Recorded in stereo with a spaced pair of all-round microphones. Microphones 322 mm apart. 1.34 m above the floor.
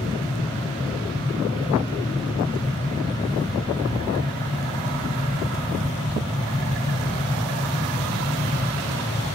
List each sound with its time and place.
0.0 s a fan: 15° left (ahead or behind), 0.8 m